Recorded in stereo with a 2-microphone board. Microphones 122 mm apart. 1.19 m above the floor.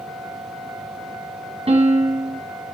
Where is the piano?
60° right (ahead or behind), 1.8 m.